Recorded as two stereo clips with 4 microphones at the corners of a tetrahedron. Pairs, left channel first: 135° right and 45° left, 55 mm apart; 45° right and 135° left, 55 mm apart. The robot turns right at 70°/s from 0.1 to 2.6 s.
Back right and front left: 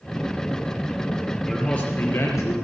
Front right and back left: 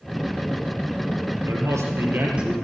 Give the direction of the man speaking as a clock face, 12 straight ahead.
7 o'clock.